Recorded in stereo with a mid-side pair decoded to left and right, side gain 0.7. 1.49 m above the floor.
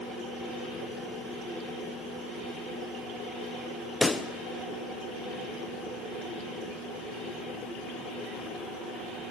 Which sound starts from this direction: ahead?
A pop, at 4.0 s.